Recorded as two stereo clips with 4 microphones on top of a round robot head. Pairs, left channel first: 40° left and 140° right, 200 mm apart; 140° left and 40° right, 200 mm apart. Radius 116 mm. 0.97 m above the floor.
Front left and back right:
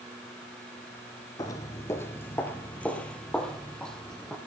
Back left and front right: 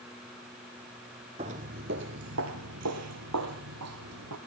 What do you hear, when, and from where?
1.4 s footsteps: 15° right, 1.0 m; by 4.4 s 45° right, 3 m